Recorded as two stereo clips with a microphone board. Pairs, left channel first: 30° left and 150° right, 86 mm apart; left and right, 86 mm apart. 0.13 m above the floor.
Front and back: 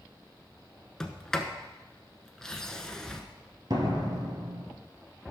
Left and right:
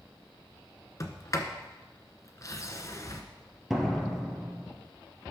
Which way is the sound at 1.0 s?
110° left.